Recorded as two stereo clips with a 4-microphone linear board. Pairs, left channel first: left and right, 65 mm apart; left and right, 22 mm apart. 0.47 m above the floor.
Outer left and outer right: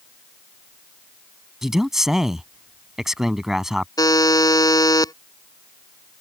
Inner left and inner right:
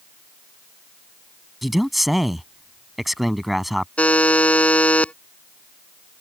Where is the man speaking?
5° right (ahead or behind).